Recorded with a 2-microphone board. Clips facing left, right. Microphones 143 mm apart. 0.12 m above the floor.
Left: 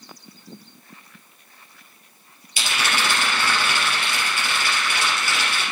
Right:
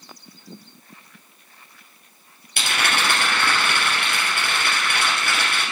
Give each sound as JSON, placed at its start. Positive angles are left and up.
{"t": 2.6, "sound": "a rattle", "side_deg": -60, "distance_m": 3.0}